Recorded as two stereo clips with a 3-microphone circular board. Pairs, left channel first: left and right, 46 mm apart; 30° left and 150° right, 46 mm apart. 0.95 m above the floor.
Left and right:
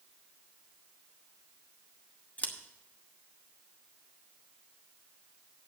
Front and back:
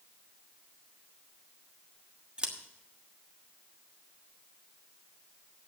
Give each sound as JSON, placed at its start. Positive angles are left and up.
{"t": 2.4, "sound": "scissors", "azimuth_deg": 145, "distance_m": 1.3}